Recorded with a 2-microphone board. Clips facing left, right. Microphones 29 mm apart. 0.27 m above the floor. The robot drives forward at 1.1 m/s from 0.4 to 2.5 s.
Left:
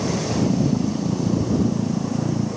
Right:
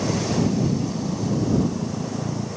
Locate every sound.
Only background noise.